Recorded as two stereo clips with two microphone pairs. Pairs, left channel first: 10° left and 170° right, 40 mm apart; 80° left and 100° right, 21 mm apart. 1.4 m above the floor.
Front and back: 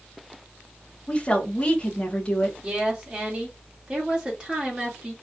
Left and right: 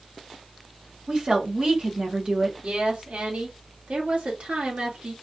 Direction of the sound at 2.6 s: 100° right.